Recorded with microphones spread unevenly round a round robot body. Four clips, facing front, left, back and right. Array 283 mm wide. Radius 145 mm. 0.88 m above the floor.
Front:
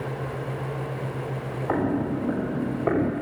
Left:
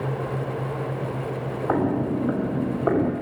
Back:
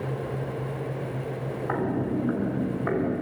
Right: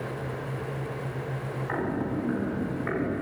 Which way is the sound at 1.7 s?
60° left.